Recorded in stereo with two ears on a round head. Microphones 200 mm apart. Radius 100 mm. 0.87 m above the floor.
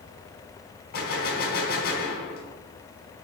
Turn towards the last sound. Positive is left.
turn(degrees=45)  # may be behind; listen again after turning